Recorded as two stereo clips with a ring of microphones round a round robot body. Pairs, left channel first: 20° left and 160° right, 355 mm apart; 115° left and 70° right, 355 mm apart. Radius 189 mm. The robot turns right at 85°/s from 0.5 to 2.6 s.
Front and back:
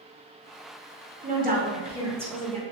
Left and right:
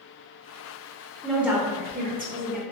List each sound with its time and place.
1.2 s a woman speaking: 170° right, 0.8 m; by 2.6 s 50° right, 0.8 m